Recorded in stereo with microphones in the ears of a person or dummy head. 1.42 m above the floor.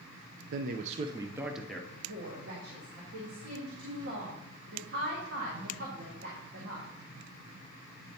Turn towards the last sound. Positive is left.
turn(degrees=-65)  # may be behind; listen again after turning